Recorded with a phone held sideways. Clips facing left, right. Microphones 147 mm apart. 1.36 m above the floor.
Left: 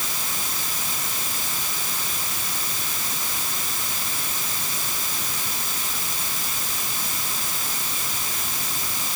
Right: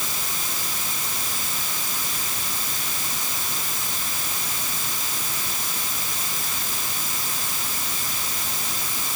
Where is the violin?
I don't hear a violin.